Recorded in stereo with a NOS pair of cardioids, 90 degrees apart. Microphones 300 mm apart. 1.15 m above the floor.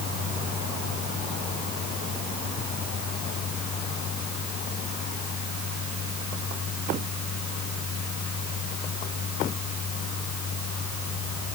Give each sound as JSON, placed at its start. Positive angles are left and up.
{"t": 0.0, "sound": "a fan", "azimuth_deg": 55}